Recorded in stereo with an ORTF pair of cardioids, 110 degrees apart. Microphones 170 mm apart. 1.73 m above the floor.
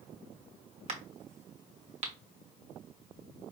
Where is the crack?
40° right, 1.3 m.